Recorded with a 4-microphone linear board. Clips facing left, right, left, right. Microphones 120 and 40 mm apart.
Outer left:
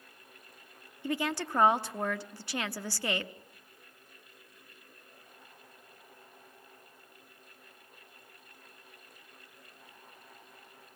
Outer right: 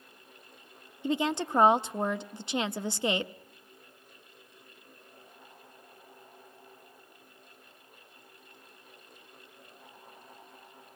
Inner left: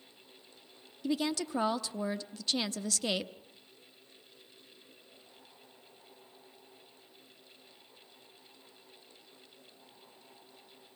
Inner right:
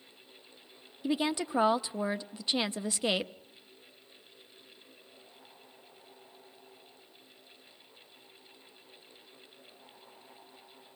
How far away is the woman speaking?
About 0.7 m.